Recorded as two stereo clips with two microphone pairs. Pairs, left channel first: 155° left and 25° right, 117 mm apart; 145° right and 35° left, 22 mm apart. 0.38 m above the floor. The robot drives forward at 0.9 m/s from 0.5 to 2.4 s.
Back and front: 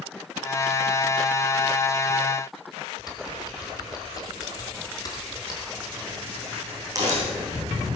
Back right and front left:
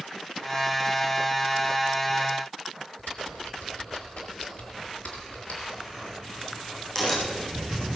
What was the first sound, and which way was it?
Typing on a keyboard, 150° right.